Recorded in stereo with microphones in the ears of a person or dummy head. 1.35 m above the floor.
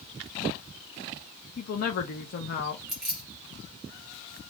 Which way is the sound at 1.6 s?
50° left (ahead or behind).